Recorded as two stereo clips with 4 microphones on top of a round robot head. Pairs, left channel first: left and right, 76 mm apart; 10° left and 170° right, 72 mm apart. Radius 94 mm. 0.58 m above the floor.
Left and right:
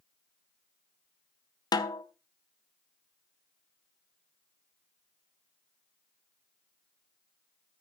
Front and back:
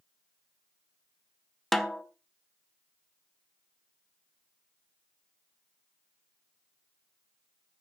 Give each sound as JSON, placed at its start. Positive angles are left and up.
{"t": 1.7, "sound": "a snare drum", "azimuth_deg": 95, "distance_m": 1.0}